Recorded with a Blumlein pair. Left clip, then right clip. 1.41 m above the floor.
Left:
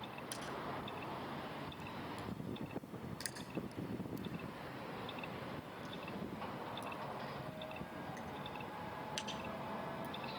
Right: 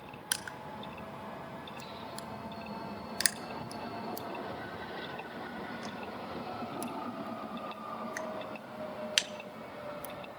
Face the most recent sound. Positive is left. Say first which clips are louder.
# right 6 dB
turn(degrees=-40)